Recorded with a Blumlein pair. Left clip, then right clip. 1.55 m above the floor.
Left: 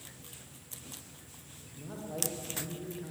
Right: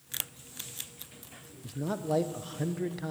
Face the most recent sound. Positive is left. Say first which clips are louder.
# right 12 dB
turn(degrees=-35)